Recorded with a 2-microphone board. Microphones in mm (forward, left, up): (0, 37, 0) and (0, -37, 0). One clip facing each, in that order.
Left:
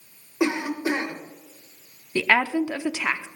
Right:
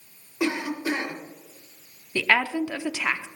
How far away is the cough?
About 2.5 m.